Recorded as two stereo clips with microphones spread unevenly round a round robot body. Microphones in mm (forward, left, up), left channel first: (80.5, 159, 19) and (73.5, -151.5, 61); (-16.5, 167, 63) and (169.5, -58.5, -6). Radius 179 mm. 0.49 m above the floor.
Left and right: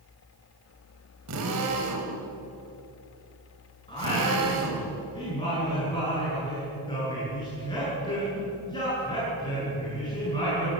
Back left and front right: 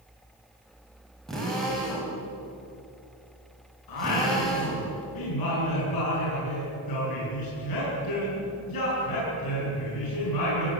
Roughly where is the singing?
Behind.